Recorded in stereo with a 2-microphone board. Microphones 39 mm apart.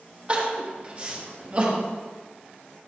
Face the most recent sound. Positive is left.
turn(degrees=-35)  # may be behind; listen again after turning